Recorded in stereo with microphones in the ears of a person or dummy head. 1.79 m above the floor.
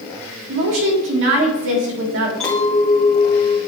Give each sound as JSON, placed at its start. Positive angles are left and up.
{"t": 0.5, "sound": "a woman speaking", "side_deg": -65, "distance_m": 1.6}
{"t": 2.4, "sound": "a clink", "side_deg": 5, "distance_m": 0.9}